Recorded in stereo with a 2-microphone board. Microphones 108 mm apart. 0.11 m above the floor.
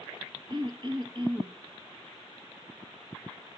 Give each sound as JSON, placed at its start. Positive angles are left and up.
{"t": 0.5, "sound": "throat clearing", "side_deg": -45, "distance_m": 2.0}